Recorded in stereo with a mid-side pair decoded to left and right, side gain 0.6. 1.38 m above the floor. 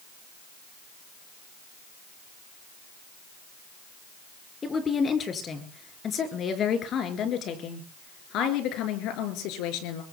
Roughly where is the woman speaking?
Ahead left.